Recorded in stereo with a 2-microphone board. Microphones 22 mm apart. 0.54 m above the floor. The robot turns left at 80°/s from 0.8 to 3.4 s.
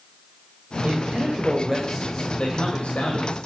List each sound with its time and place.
0.8 s a man speaking: 100° right, 2.5 m; by 3.4 s 60° left, 2.5 m